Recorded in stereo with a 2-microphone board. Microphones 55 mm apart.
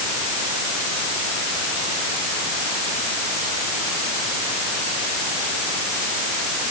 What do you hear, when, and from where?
Only background noise.